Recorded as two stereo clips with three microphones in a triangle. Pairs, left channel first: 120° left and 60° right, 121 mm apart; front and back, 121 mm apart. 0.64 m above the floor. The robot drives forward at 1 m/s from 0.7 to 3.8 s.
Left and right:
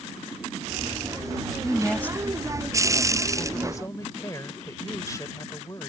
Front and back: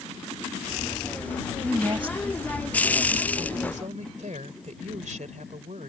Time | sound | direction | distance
1.6 | a woman speaking | 160° right | ?